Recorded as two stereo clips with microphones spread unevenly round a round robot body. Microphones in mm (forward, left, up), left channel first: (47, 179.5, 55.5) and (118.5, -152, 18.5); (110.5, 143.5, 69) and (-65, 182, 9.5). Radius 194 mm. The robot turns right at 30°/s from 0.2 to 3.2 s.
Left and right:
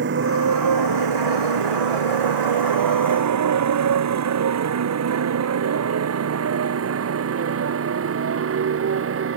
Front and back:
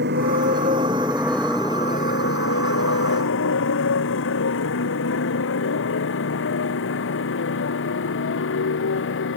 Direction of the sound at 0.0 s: 140° right.